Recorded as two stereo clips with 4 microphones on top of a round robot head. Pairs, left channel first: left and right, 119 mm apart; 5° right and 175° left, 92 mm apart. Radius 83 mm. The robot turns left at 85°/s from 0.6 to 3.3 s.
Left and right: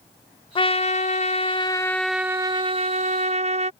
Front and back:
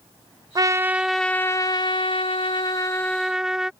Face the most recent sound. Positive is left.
turn(degrees=-105)